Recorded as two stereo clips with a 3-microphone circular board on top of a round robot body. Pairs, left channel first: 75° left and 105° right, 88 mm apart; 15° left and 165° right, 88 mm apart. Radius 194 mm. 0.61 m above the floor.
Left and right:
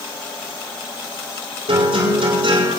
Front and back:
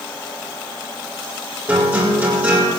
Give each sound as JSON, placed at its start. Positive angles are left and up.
{"t": 1.7, "sound": "a guitar", "azimuth_deg": -95, "distance_m": 8.5}